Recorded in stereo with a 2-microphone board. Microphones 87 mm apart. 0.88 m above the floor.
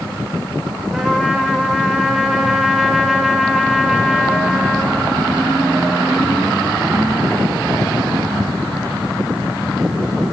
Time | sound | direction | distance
0.9 | a trumpet | 5° right (ahead or behind) | 3 m